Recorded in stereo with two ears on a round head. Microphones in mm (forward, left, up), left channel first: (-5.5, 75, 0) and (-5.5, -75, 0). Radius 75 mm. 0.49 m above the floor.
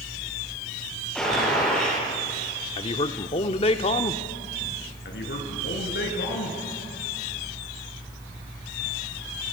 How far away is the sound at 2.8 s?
About 0.9 m.